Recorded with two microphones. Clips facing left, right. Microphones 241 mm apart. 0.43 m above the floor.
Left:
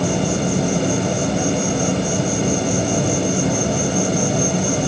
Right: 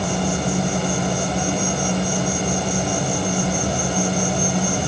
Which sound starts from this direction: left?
An insect, at 0.0 s.